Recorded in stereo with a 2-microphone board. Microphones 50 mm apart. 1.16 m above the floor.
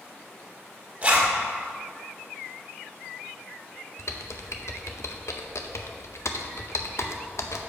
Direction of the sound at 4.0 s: 65° left (ahead or behind).